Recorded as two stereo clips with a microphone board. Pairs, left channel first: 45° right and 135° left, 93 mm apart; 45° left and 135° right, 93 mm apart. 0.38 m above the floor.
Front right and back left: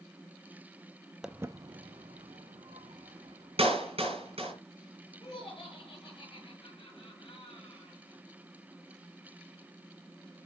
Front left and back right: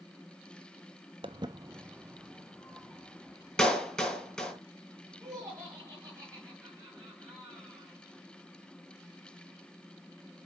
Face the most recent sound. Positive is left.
turn(degrees=-75)